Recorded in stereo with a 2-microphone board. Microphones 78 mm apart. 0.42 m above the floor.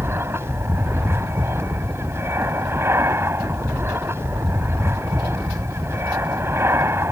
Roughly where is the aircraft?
Right.